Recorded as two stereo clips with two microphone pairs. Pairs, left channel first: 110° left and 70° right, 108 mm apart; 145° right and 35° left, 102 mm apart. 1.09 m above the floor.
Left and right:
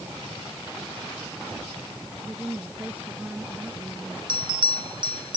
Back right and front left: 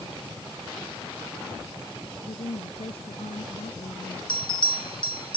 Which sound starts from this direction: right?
A bell, at 4.3 s.